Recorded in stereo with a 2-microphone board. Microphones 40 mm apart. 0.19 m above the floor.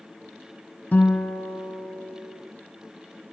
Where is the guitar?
35° left (ahead or behind), 2 m.